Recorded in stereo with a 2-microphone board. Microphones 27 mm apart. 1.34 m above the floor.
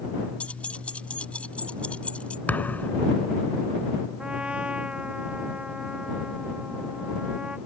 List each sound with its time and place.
0.4 s keys jangling: 55° left (ahead or behind); by 2.4 s 50° left (ahead or behind)
2.5 s a thud: 75° left (ahead or behind)
4.2 s a trumpet: 45° right (ahead or behind)